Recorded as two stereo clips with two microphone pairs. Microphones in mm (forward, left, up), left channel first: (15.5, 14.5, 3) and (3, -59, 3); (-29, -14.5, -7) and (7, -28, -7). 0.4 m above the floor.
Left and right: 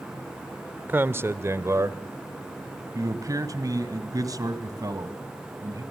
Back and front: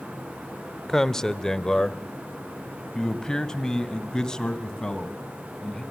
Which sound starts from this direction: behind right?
A man speaking, at 0.9 s.